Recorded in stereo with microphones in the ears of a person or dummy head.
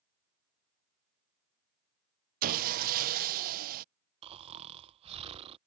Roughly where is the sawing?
Right.